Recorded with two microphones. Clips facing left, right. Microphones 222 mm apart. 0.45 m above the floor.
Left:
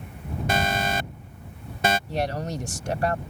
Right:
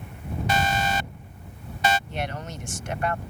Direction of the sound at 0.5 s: 50° left (ahead or behind).